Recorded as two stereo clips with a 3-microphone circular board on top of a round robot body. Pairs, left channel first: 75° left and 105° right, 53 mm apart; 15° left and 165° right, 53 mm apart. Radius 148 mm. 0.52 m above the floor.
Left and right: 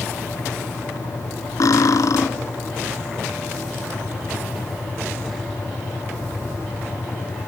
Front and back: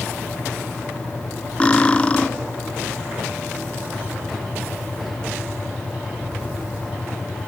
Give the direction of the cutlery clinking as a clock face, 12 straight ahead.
9 o'clock.